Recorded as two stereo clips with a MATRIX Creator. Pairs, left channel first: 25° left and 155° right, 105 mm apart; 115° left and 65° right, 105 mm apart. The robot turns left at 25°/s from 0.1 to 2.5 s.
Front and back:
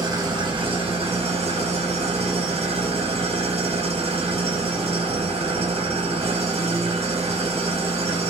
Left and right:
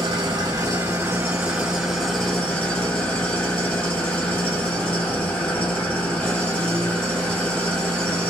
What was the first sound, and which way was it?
An engine running, 105° right.